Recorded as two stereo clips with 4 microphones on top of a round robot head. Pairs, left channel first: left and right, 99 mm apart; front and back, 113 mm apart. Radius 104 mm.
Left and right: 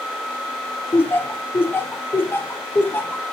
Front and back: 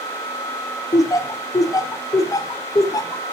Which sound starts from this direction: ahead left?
Laughter, at 0.9 s.